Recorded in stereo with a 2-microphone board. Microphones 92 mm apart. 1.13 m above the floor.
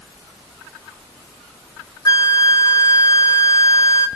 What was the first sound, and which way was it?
A flute, 40° left (ahead or behind).